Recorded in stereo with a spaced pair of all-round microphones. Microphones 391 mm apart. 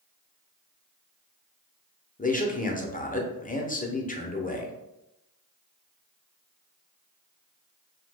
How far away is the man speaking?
About 0.5 m.